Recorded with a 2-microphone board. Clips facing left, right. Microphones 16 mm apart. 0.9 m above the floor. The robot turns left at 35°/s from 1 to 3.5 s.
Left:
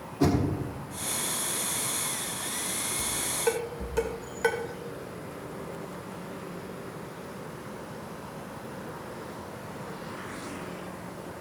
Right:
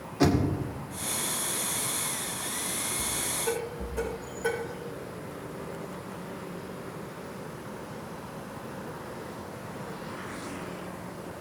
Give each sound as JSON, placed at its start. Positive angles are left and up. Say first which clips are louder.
{"t": 0.2, "sound": "knocking", "louder": "right 1 dB", "side_deg": -75, "distance_m": 2.0}
{"t": 3.0, "sound": "dishes clattering", "louder": "left 5 dB", "side_deg": 85, "distance_m": 2.0}